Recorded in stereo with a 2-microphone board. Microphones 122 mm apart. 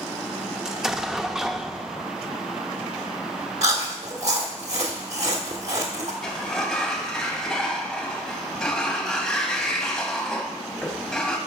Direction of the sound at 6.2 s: 5° left (ahead or behind).